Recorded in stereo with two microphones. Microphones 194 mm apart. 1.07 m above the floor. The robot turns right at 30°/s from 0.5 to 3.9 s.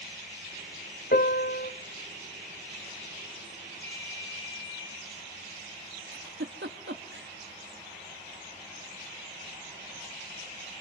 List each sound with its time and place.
1.1 s a piano: 55° left (ahead or behind), 1.2 m; by 1.7 s 60° left (ahead or behind), 1.2 m
3.8 s a ringtone: 90° left, 6.5 m; by 4.9 s 85° left, 6.5 m
6.1 s a giggle: 75° right (ahead or behind), 1.4 m